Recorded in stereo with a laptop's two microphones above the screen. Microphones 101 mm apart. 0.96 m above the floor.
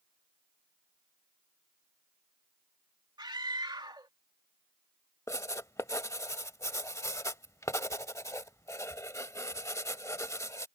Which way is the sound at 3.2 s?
45° right (ahead or behind).